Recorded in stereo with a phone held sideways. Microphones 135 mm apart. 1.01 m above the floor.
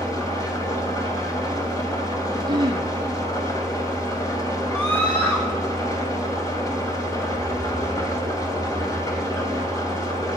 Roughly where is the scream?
Centre.